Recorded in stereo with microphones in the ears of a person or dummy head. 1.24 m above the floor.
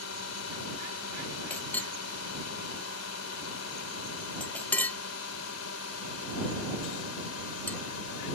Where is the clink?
15° left (ahead or behind).